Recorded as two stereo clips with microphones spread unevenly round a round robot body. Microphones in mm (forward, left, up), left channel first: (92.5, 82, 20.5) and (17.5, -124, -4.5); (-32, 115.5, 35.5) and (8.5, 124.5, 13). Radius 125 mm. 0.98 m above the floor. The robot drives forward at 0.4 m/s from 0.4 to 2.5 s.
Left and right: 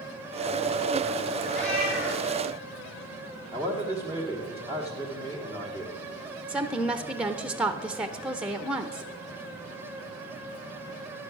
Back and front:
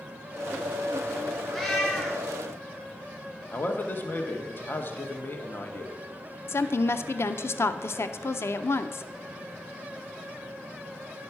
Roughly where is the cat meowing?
Left.